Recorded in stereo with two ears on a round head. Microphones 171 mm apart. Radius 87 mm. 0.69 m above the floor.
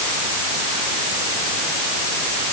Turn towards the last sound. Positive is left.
No sound to turn to.